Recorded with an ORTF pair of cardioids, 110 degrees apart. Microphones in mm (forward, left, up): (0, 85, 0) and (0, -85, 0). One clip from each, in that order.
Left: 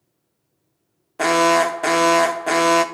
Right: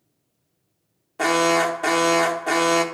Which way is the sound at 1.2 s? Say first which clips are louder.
Left 3 dB; 15° left.